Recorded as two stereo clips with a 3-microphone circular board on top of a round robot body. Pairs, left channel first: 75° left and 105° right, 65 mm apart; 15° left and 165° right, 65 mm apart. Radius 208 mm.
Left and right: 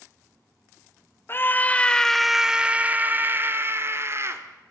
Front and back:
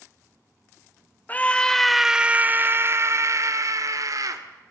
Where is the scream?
60° left, 1.2 m; by 4.4 s 150° right, 2 m.